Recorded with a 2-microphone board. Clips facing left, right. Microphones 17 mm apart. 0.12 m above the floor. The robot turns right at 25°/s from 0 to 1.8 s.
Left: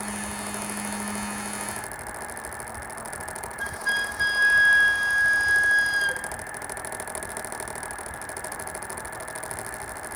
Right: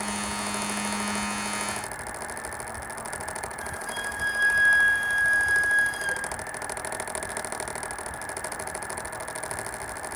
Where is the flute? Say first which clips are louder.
Left 10 dB; 50° left (ahead or behind), 1.1 m.